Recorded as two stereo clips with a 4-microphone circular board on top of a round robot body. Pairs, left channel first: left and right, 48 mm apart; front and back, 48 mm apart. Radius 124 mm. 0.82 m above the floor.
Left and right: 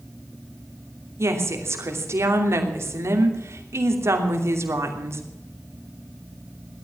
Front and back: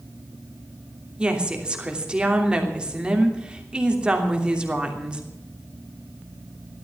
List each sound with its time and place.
1.2 s a woman speaking: 110° right, 3 m